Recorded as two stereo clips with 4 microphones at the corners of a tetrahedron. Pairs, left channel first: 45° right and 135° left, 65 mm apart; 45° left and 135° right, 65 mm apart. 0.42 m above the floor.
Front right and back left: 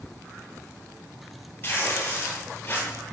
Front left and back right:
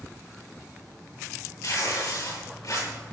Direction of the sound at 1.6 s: 15° left.